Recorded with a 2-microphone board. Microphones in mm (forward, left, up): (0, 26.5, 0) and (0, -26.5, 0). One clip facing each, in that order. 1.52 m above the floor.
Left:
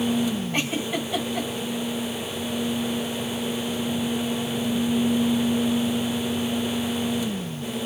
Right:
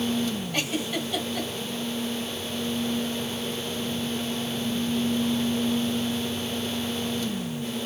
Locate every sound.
0.5 s a giggle: 25° left (ahead or behind), 2.5 m